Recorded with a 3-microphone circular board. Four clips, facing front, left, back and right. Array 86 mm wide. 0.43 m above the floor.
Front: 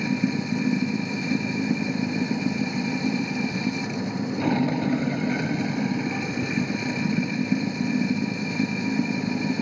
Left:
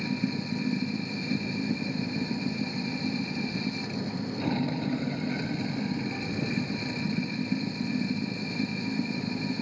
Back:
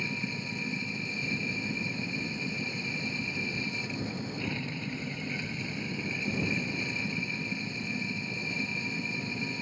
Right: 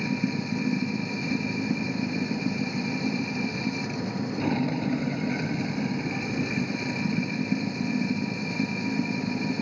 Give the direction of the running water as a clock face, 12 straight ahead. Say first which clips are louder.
Right 2 dB, front 12 dB; 12 o'clock.